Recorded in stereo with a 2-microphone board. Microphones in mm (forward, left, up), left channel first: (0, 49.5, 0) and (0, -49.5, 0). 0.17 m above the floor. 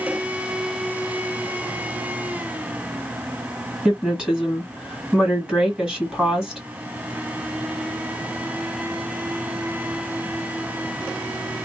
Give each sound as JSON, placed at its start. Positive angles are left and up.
{"t": 3.9, "sound": "a woman speaking", "side_deg": -10, "distance_m": 1.8}